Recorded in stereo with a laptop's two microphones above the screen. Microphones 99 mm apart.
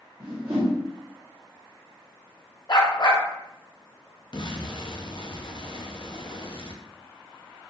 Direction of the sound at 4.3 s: 55° left (ahead or behind).